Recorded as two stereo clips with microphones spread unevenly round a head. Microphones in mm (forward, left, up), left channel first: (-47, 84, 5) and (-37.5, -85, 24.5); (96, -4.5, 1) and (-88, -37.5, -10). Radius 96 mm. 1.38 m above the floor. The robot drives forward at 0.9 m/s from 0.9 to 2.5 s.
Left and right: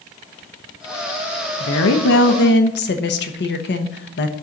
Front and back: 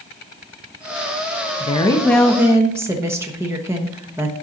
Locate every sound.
1.6 s a woman speaking: 70° left, 1.1 m; by 4.3 s 110° left, 1.1 m